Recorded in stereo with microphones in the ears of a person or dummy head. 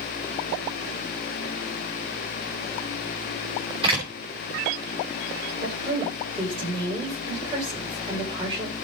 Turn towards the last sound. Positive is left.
turn(degrees=-30)  # may be behind; listen again after turning